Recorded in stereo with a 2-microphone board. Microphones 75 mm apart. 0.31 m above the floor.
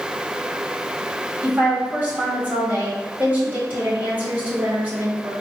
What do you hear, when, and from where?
1.4 s a woman speaking: 25° right (ahead or behind), 1.8 m